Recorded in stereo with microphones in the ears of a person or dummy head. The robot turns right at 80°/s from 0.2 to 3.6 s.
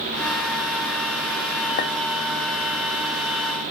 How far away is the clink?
About 1.2 m.